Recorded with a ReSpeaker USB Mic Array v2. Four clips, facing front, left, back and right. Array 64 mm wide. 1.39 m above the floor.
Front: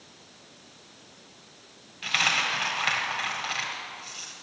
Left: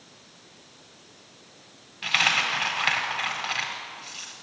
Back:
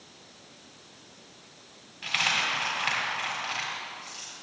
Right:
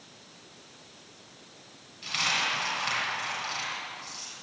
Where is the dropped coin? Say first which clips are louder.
Left 6 dB, front 2 dB; 70° left, 1.6 m.